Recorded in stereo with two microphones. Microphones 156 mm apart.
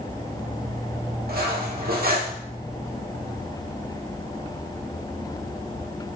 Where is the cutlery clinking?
75° right (ahead or behind), 0.8 m.